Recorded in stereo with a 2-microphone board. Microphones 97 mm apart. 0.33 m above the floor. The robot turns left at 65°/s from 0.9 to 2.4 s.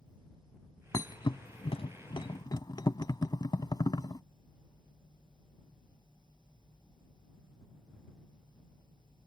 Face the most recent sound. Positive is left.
turn(degrees=45)  # may be behind; listen again after turning